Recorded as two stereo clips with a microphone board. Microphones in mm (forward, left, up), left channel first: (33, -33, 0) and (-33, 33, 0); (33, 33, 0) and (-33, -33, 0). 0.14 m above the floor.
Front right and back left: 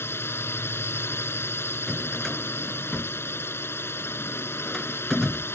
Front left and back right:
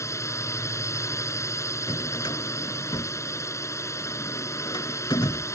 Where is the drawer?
40° left.